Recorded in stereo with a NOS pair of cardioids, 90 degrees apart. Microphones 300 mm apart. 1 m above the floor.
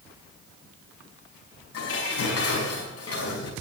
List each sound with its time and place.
1.7 s dishes clattering: 50° left, 5.5 m